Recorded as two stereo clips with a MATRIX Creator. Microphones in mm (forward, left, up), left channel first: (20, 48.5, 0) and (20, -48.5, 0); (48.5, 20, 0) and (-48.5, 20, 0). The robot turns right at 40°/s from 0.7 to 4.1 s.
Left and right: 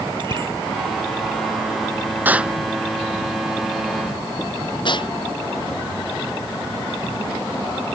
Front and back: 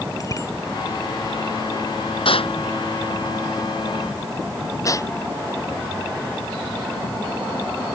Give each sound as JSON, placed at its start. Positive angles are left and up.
{"t": 0.2, "sound": "a bicycle bell", "azimuth_deg": -50}
{"t": 2.2, "sound": "an explosion", "azimuth_deg": -20}